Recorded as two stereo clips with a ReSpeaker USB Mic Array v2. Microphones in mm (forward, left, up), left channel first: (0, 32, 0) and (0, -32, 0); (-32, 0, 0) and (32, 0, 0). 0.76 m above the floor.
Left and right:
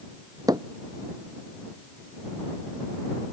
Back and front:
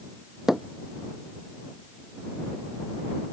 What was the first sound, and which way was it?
Hammering, 85° right.